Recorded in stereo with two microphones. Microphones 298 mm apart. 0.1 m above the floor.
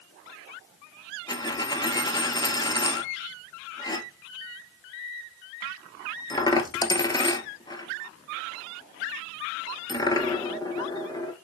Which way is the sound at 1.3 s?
15° left (ahead or behind).